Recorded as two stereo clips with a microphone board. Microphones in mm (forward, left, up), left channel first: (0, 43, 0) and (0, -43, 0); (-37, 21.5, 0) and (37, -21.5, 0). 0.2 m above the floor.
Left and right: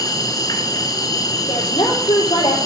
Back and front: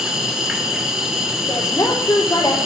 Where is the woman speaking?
105° left, 5 m.